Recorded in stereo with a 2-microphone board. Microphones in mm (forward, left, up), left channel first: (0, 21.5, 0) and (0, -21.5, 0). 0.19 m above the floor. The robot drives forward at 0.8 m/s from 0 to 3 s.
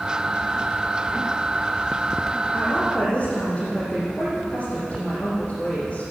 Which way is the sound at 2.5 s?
25° left (ahead or behind).